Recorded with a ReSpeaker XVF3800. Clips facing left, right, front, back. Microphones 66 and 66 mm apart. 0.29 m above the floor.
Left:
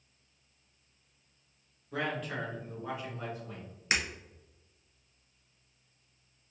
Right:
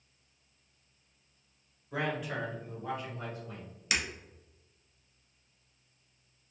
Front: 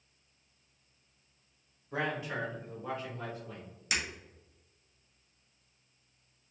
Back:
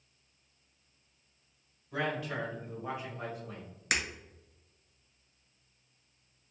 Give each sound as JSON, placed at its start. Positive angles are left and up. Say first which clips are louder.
{"t": 1.9, "sound": "a man speaking", "louder": "right 1 dB, even", "azimuth_deg": -20, "distance_m": 1.4}
{"t": 3.9, "sound": "breaking glass", "louder": "left 2 dB, back 2 dB", "azimuth_deg": 145, "distance_m": 0.7}